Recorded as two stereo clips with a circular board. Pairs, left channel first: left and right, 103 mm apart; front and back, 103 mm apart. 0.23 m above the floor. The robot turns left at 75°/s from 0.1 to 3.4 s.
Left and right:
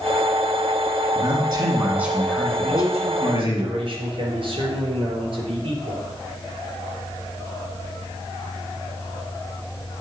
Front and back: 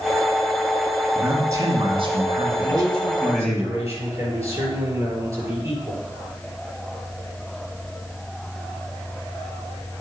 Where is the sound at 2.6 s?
65° right, 4.5 m; by 6.0 s 120° right, 4.5 m.